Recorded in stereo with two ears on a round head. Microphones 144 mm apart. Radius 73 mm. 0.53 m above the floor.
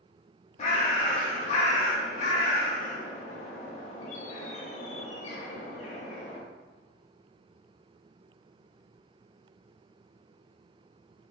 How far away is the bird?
About 0.5 m.